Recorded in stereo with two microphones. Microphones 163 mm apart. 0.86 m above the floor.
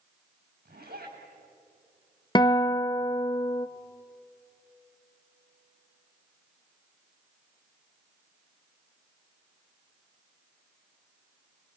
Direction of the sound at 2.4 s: 25° left (ahead or behind).